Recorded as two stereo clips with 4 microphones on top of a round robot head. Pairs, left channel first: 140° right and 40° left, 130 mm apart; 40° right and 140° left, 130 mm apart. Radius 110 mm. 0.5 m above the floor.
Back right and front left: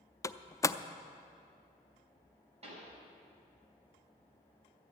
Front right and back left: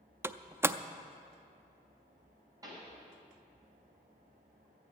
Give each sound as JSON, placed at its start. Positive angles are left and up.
{"t": 0.2, "sound": "a door slam", "azimuth_deg": -170, "distance_m": 0.5}
{"t": 2.6, "sound": "a pop", "azimuth_deg": 75, "distance_m": 3.5}